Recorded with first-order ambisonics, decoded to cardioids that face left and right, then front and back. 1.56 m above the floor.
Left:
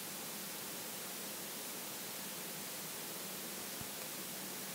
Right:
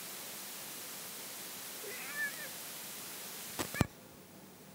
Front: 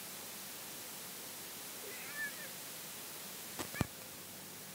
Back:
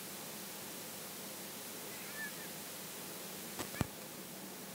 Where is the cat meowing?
80° right.